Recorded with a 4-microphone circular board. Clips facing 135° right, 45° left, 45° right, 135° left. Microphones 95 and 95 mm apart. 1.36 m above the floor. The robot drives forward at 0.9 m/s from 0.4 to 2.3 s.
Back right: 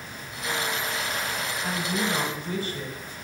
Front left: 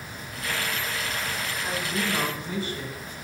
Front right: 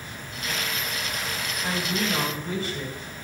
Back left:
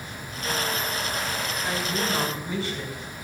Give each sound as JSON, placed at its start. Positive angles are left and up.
{"t": 1.6, "sound": "a woman speaking", "azimuth_deg": -90, "distance_m": 5.5}